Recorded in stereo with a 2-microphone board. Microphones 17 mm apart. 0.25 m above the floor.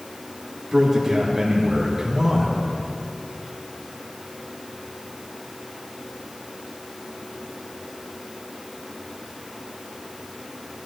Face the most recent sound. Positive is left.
turn(degrees=-25)  # may be behind; listen again after turning